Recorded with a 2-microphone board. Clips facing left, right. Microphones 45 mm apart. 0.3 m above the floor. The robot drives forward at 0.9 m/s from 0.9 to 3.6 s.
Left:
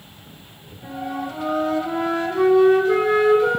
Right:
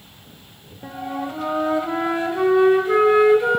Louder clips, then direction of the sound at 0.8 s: Even; 25° right (ahead or behind).